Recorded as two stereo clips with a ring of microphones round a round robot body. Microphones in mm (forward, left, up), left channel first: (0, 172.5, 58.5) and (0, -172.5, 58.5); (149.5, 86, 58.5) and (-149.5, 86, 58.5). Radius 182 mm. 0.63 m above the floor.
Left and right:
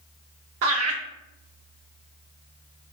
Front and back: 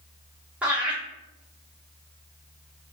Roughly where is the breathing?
I don't hear breathing.